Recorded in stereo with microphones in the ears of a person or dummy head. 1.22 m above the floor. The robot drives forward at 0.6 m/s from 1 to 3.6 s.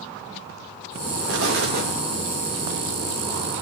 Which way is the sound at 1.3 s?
65° right (ahead or behind).